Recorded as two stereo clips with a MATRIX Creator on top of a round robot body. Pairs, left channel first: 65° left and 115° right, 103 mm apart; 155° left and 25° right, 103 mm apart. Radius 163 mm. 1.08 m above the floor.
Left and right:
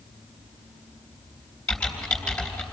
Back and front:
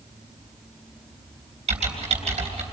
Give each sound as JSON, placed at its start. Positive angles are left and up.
{"t": 1.7, "sound": "typing on a keyboard", "azimuth_deg": -15, "distance_m": 3.5}